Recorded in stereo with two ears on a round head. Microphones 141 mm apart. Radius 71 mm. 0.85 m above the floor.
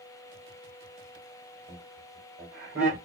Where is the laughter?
50° right (ahead or behind), 3 m.